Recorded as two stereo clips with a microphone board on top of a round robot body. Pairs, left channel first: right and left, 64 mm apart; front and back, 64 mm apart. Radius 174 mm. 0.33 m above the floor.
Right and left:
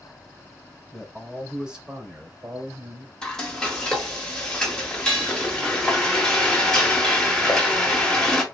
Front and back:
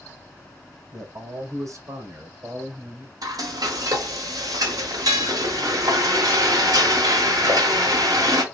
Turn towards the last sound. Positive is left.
turn(degrees=-170)